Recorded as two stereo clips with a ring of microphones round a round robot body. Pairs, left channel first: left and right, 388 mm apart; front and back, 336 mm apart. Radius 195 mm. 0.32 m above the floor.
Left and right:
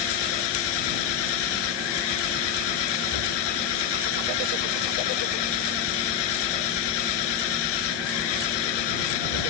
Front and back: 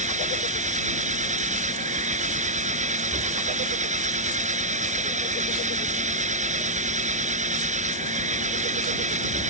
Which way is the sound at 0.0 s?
110° left.